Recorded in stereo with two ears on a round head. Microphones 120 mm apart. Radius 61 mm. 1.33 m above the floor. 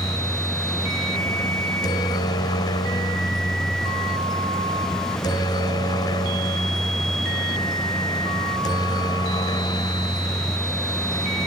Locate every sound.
0.0 s a helicopter: 30° left (ahead or behind)